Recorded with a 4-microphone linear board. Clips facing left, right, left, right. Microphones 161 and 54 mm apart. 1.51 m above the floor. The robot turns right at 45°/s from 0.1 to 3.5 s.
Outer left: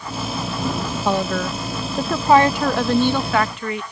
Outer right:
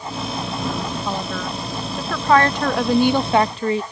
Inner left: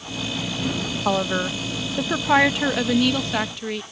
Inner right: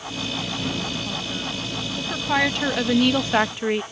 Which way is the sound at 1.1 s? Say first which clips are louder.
Outer left 5 dB, inner left 8 dB; 105° left.